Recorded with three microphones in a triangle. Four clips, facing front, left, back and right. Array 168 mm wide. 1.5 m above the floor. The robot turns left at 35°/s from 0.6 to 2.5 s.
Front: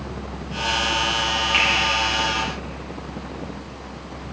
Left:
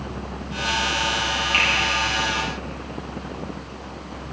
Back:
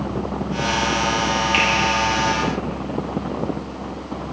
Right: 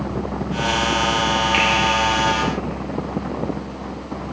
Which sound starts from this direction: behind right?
A finger snap, at 1.5 s.